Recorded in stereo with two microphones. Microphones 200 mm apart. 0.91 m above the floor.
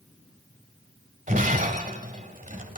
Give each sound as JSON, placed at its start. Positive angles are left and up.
{"t": 1.3, "sound": "breaking glass", "side_deg": -40, "distance_m": 1.7}